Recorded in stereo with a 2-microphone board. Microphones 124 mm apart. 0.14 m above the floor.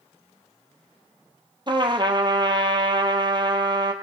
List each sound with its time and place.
1.7 s a trumpet: 40° right (ahead or behind), 0.9 m